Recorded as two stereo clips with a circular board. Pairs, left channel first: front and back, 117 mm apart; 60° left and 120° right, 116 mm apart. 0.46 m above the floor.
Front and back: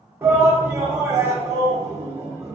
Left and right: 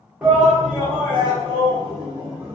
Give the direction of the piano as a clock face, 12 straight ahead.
I don't hear a piano.